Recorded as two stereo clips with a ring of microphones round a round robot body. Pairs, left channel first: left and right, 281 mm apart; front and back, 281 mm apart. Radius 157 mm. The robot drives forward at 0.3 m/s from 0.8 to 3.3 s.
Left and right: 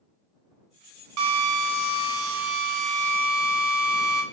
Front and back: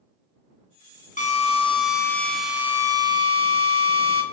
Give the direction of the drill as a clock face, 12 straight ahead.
2 o'clock.